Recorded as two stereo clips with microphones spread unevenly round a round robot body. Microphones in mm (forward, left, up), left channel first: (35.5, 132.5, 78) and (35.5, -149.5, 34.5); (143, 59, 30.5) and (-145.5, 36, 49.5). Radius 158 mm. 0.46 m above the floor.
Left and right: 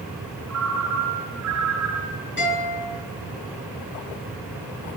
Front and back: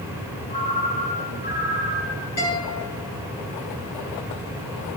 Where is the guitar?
40° left, 7 m.